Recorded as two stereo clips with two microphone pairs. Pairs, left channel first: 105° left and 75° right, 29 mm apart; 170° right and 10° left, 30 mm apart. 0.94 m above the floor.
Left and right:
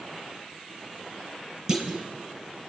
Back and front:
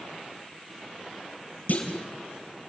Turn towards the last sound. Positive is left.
turn(degrees=-140)